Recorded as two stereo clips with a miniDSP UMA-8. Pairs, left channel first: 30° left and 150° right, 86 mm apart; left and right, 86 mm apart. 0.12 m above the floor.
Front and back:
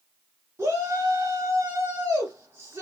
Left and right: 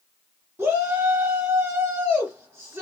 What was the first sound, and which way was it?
A shout, 120° right.